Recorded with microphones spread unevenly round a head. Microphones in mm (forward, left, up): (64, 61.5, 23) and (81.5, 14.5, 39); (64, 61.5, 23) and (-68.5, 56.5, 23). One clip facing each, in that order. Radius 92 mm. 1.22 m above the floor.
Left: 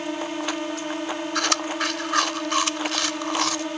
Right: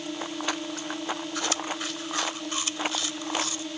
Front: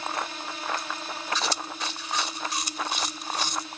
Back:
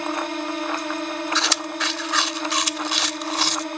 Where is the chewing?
165° left.